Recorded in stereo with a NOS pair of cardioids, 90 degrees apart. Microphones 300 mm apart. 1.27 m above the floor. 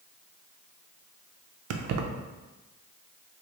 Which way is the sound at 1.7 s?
60° right.